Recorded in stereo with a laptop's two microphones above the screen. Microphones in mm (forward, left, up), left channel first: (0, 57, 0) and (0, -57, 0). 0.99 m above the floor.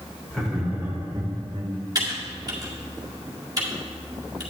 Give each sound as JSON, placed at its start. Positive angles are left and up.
{"t": 0.3, "sound": "laughter", "side_deg": 5, "distance_m": 1.7}
{"t": 1.9, "sound": "typing on a keyboard", "side_deg": -35, "distance_m": 2.0}